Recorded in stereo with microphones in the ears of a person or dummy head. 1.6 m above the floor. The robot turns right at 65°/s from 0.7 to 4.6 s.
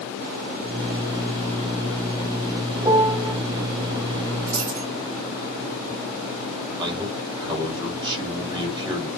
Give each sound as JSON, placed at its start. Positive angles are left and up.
{"t": 2.8, "sound": "a piano", "azimuth_deg": -30, "distance_m": 0.9}
{"t": 4.5, "sound": "a dropped coin", "side_deg": -25, "distance_m": 3.5}
{"t": 6.8, "sound": "a man speaking", "side_deg": -25, "distance_m": 3.5}